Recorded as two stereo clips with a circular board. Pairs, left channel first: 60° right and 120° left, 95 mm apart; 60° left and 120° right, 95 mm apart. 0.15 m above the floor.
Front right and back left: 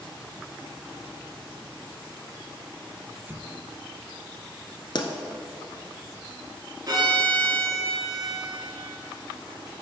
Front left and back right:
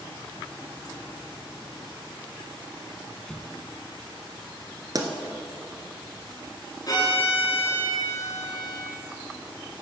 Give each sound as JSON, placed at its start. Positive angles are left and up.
{"t": 3.3, "sound": "an explosion", "azimuth_deg": 135, "distance_m": 0.6}
{"t": 5.0, "sound": "a pop", "azimuth_deg": -80, "distance_m": 0.9}
{"t": 6.9, "sound": "a violin", "azimuth_deg": 90, "distance_m": 2.5}